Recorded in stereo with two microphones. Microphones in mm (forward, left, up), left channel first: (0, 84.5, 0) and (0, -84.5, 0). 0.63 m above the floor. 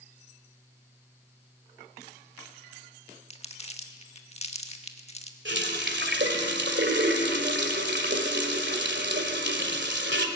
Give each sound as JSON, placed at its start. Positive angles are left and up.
{"t": 3.3, "sound": "crumpling", "side_deg": 35, "distance_m": 1.4}
{"t": 5.5, "sound": "a running tap", "side_deg": -75, "distance_m": 2.0}